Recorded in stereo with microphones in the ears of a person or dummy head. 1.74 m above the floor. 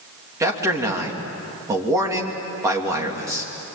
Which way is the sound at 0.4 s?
20° right (ahead or behind).